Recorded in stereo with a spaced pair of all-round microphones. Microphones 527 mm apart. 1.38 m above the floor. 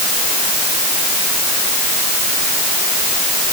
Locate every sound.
Only background noise.